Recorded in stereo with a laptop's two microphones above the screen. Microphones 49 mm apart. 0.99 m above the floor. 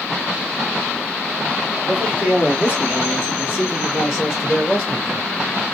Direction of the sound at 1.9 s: 35° right (ahead or behind).